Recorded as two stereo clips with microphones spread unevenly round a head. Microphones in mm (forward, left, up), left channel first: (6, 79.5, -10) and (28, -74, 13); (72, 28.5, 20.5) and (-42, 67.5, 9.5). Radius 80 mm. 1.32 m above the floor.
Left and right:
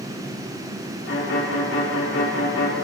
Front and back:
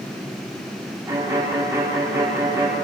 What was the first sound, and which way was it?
A violin, 95° left.